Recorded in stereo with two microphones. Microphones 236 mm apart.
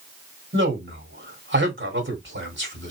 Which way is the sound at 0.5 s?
50° right (ahead or behind).